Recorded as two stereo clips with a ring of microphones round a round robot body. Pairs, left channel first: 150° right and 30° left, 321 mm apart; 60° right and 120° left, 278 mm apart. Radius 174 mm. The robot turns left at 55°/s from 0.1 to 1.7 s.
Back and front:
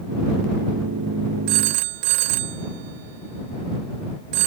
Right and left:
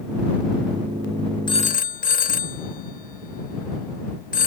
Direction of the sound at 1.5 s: 15° left.